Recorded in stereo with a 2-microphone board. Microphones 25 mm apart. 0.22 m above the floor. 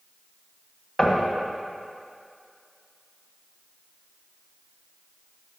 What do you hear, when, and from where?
1.0 s knocking: 15° left (ahead or behind), 1.4 m